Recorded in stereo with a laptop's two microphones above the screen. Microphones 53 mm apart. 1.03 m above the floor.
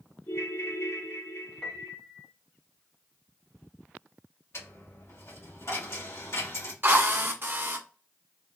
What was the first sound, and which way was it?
A ringtone, 65° left (ahead or behind).